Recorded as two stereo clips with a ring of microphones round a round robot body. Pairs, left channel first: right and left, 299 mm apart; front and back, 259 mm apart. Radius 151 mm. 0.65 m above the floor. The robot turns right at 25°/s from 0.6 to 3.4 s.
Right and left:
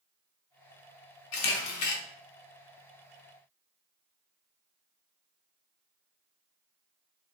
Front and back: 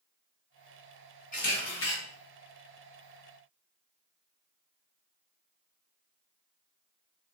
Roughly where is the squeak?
I don't hear a squeak.